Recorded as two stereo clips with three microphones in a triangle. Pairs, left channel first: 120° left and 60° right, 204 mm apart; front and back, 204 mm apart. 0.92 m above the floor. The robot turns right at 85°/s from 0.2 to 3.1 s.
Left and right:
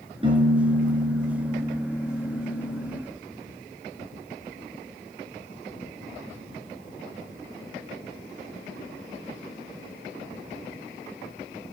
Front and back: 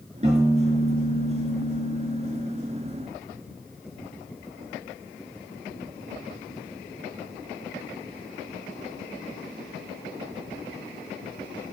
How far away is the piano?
About 5 m.